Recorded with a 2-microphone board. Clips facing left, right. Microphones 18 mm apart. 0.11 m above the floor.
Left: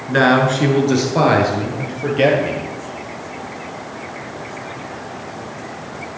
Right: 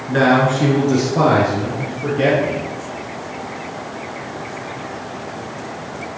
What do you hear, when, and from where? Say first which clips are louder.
0.1 s a man speaking: left 1 dB; 20° left (ahead or behind), 1.7 m; by 2.6 s 50° left (ahead or behind), 3.5 m